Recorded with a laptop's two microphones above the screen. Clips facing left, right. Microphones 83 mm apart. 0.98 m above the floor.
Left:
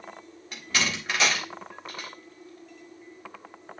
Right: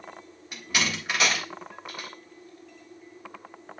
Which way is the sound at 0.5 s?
10° right (ahead or behind).